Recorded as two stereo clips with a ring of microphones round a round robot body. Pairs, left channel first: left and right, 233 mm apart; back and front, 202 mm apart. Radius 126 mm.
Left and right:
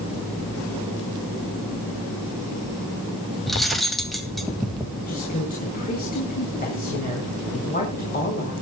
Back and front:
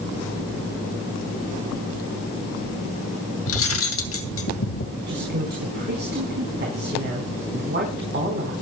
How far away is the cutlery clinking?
About 2 m.